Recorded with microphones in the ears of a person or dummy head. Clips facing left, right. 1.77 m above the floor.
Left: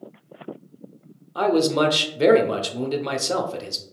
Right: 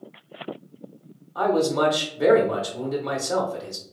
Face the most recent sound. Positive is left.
turn(degrees=40)  # may be behind; listen again after turning